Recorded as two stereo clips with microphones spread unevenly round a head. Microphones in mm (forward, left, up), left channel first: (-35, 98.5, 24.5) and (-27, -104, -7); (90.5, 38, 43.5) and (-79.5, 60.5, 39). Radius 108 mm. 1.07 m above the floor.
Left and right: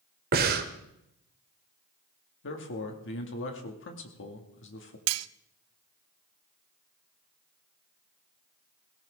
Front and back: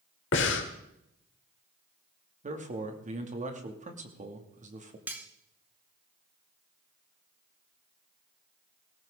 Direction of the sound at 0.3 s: 35° right.